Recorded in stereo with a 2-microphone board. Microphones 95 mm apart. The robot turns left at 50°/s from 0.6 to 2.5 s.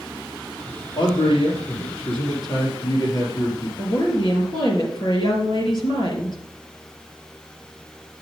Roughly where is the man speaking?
Behind left.